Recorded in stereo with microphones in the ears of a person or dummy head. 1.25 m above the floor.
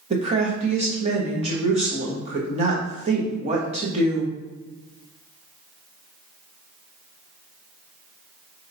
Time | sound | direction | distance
0.1 | a woman speaking | 30° right (ahead or behind) | 1.0 m